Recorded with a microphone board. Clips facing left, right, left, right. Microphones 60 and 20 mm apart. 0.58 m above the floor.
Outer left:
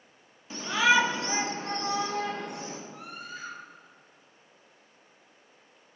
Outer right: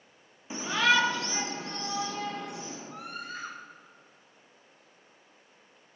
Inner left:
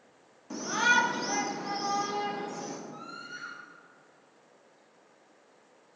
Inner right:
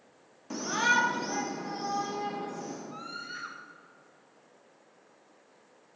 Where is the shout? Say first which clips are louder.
Outer left 2 dB, inner left 1 dB; 20° right (ahead or behind), 0.7 m; by 2.8 s 55° left (ahead or behind), 2 m.